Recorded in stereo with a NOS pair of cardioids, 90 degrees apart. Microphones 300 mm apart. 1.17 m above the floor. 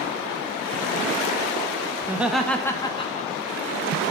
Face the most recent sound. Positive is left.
turn(degrees=25)